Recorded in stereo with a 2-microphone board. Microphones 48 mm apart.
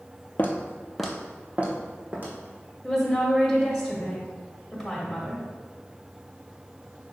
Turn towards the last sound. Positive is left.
turn(degrees=0)  # may be behind; listen again after turning